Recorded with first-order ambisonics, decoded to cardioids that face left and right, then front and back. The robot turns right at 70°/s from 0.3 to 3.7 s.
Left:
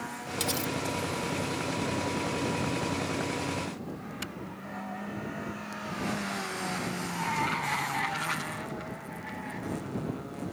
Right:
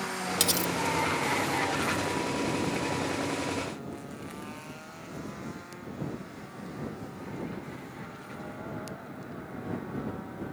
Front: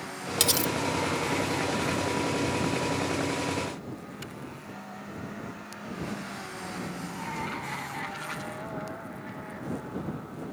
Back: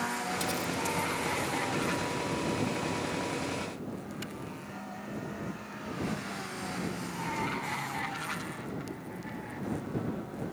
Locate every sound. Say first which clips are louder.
0.4 s cutlery clinking: right 3 dB, front 6 dB; 30° right; by 0.7 s 5° right